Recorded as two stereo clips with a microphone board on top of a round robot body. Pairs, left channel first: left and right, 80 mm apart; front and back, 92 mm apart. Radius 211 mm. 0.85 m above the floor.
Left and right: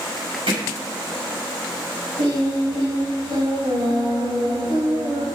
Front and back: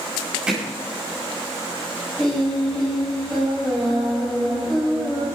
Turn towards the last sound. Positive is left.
turn(degrees=-90)